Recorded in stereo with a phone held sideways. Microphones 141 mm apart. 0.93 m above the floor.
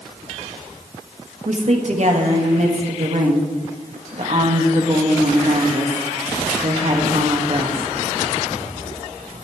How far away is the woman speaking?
About 1.6 m.